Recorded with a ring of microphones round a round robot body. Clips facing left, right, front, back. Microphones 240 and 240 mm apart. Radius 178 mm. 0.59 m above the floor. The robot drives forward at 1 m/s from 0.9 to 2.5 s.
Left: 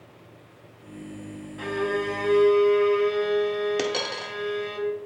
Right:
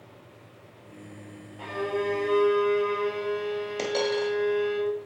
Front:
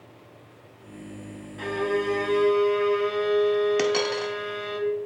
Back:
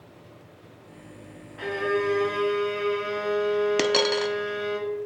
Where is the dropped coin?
130° left, 0.6 m.